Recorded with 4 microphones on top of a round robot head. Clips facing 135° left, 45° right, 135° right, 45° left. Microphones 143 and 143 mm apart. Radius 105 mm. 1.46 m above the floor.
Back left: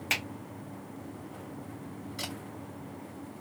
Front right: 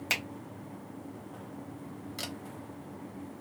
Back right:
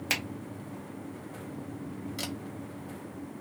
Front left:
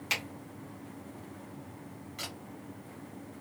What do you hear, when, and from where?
0.1 s a finger snap: 100° right, 1.1 m
2.2 s a camera shutter: 80° right, 0.8 m